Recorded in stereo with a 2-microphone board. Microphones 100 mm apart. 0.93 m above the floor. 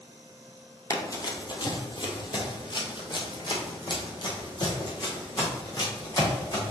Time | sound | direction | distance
0.9 | running footsteps | 35° left (ahead or behind) | 1.2 m